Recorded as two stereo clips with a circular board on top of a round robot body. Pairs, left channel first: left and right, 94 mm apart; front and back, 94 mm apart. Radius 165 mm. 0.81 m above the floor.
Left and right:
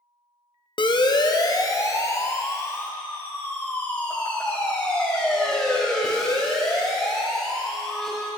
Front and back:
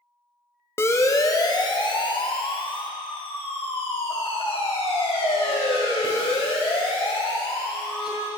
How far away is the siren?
About 2 m.